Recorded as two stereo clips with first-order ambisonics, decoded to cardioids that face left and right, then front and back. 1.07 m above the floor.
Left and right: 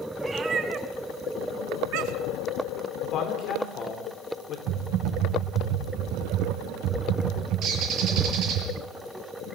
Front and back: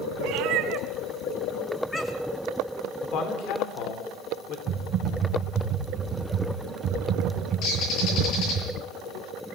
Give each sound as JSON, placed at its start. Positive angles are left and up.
{"t": 0.2, "sound": "a cat meowing", "azimuth_deg": -165, "distance_m": 2.0}
{"t": 3.0, "sound": "a man speaking", "azimuth_deg": 40, "distance_m": 3.0}
{"t": 4.7, "sound": "typing on a keyboard", "azimuth_deg": -115, "distance_m": 4.0}
{"t": 7.6, "sound": "a bird", "azimuth_deg": -40, "distance_m": 8.0}